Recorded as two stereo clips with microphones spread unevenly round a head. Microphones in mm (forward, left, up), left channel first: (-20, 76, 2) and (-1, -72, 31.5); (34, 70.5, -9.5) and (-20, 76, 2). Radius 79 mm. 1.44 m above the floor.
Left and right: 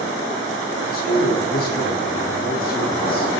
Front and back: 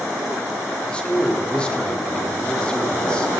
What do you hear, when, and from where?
0.9 s a man speaking: 65° left, 3.5 m